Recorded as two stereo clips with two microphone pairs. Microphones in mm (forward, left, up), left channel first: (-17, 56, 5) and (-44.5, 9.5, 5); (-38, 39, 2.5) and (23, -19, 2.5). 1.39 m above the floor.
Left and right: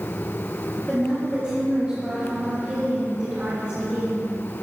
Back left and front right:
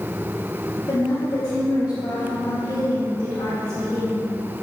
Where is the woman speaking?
175° left, 2.5 m.